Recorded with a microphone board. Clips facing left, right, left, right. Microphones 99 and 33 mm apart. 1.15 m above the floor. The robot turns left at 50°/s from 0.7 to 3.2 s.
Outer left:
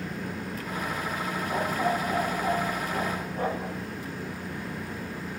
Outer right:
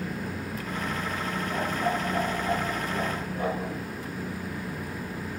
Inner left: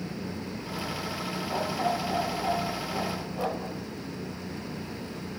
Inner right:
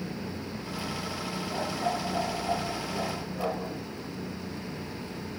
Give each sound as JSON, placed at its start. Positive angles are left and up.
{"t": 1.5, "sound": "a dog barking", "azimuth_deg": 120, "distance_m": 8.5}